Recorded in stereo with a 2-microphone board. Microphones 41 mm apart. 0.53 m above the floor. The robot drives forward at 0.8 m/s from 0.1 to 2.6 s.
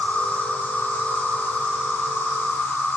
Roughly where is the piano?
I don't hear a piano.